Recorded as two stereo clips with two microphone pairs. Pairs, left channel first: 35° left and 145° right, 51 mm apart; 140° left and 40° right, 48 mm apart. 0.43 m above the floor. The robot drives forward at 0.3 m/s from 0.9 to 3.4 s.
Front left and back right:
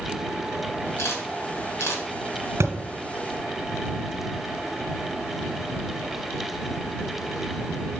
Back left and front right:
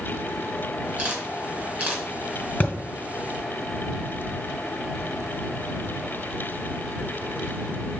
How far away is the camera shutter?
About 3.5 m.